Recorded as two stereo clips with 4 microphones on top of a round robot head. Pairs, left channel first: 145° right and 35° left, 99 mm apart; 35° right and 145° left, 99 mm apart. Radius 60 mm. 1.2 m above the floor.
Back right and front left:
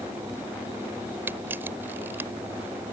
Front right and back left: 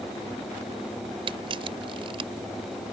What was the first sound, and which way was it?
A camera shutter, 105° left.